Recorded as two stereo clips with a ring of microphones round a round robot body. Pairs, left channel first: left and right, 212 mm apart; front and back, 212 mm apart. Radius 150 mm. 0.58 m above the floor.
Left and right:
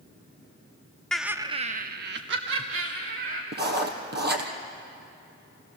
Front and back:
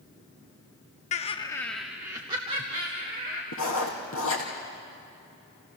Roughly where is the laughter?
Ahead.